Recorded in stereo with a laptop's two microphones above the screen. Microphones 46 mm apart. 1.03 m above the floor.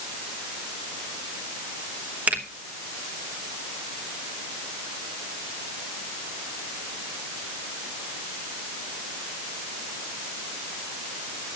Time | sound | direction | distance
2.3 | a finger snap | 30° right (ahead or behind) | 1.0 m